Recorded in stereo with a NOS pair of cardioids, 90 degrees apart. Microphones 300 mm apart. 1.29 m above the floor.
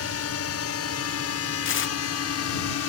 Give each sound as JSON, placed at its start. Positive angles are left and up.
{"t": 0.0, "sound": "a drone", "azimuth_deg": 55}
{"t": 1.6, "sound": "tearing paper", "azimuth_deg": 45}